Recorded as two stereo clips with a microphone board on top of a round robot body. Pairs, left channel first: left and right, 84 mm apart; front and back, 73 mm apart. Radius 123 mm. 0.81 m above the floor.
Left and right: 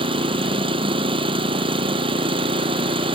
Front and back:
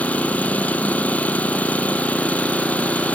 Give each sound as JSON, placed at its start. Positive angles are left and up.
{"t": 0.0, "sound": "an engine running", "azimuth_deg": -70}